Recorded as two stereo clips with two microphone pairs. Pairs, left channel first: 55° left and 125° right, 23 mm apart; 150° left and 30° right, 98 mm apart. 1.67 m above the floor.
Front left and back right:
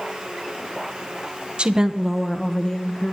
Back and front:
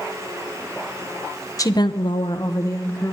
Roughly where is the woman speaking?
Behind.